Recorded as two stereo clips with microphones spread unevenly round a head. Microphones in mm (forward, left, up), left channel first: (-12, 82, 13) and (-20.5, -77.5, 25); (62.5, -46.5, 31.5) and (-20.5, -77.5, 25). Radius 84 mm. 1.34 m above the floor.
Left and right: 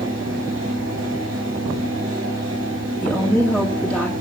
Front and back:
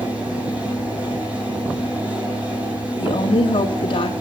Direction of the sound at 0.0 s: 85° right.